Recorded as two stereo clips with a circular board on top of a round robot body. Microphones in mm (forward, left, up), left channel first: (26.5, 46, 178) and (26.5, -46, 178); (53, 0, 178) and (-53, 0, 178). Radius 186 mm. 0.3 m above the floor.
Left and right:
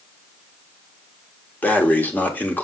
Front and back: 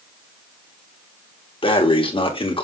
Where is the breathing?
20° left, 1.8 m.